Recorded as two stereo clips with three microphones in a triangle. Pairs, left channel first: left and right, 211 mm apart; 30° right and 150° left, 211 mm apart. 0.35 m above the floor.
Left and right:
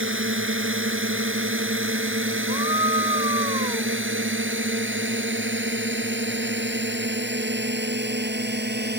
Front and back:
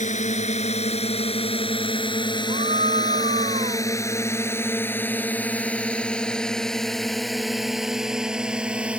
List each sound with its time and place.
0.0 s a drone: 85° right; by 9.0 s 125° right
2.5 s a scream: 155° right